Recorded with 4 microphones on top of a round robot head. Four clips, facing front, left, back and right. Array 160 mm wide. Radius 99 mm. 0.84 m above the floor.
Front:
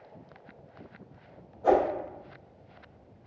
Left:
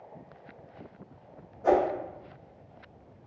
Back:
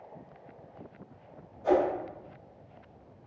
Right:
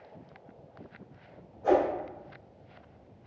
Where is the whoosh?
50° left, 1.2 m.